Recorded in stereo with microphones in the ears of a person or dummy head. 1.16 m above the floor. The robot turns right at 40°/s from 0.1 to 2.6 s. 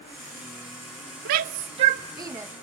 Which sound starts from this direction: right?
A shout, at 1.2 s.